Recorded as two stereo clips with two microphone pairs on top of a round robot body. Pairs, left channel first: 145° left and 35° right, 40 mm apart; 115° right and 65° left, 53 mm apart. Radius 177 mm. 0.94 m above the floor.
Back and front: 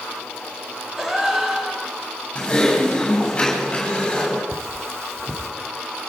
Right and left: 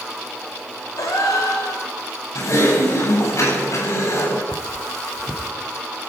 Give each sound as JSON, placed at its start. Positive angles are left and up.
{"t": 1.0, "sound": "a gasp", "azimuth_deg": -110, "distance_m": 4.0}
{"t": 2.4, "sound": "typing on a keyboard", "azimuth_deg": -145, "distance_m": 8.5}
{"t": 4.5, "sound": "cutlery clinking", "azimuth_deg": -35, "distance_m": 3.0}